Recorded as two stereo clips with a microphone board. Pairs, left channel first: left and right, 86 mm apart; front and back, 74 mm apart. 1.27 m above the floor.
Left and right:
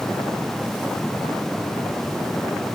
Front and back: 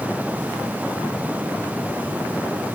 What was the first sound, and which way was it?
Only background noise.